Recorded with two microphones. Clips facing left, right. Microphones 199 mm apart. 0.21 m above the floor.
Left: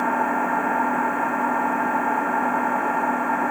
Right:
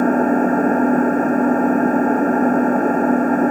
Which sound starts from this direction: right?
An engine running, at 0.0 s.